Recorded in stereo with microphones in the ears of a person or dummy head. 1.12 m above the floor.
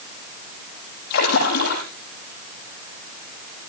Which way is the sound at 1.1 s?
50° left (ahead or behind).